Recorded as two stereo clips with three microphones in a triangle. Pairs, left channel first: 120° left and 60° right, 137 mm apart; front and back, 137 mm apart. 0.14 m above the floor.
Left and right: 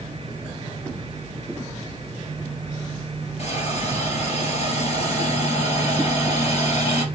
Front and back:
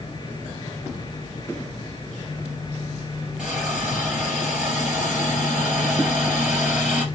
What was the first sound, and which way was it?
A hiss, 100° left.